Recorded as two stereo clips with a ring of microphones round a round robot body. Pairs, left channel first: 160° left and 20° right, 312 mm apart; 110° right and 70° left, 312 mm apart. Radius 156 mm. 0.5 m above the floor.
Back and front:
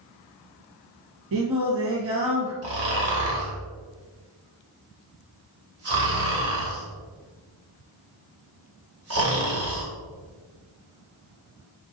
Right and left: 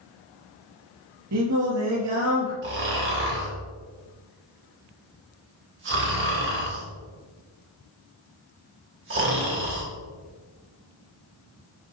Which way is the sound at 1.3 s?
25° left.